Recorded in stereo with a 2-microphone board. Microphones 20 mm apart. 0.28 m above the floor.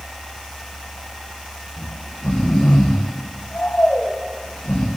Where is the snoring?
90° left, 3.5 m.